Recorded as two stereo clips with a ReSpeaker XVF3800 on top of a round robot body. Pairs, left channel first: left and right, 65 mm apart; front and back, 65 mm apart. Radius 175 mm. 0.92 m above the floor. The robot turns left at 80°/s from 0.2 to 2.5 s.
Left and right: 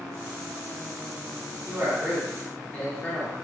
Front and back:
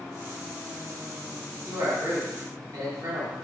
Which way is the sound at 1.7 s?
140° right.